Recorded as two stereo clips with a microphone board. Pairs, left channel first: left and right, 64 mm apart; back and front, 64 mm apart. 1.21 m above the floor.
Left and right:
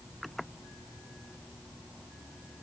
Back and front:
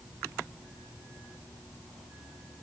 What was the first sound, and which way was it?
Only background noise.